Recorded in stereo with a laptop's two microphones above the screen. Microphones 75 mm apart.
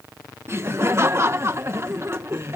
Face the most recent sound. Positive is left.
turn(degrees=-40)  # may be behind; listen again after turning